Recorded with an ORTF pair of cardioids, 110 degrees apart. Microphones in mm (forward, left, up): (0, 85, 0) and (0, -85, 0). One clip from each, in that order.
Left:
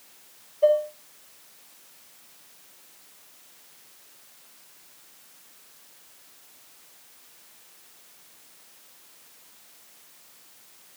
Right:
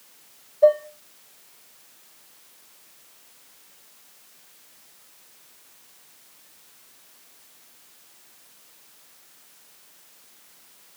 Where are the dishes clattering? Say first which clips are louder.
Right 3 dB; 30° right, 2.5 m.